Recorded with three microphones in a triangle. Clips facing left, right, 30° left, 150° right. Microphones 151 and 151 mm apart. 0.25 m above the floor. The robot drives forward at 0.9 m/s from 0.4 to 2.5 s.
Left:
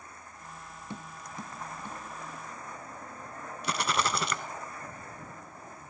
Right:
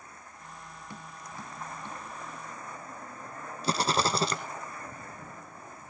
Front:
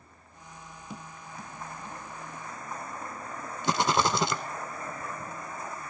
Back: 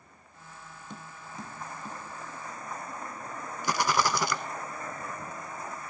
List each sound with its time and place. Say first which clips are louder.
0.9 s tapping: left 3 dB, front 1 dB; 105° left, 0.5 m; by 2.0 s 170° left, 1.2 m
3.6 s a rattle: right 3 dB, front 2 dB; 35° right, 1.0 m